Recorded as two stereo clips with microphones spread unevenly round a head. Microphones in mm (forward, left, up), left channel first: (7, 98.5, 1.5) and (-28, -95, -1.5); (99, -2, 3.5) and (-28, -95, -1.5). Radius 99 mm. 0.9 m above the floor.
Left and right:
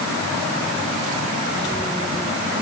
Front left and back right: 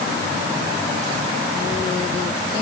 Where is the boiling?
I don't hear boiling.